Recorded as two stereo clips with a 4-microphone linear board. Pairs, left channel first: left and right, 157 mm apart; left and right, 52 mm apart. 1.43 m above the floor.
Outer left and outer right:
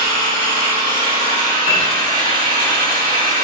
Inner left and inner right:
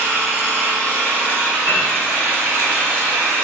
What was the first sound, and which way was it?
An engine running, 35° right (ahead or behind).